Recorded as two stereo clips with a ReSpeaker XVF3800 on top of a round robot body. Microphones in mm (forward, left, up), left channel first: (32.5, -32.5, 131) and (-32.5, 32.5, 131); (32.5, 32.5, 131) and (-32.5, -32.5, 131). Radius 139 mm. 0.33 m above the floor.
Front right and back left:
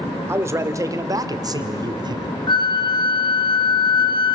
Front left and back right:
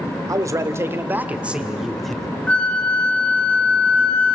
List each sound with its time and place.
0.3 s a man speaking: 175° right, 2 m; by 2.3 s 130° left, 2 m
2.5 s a flute: 30° right, 1.5 m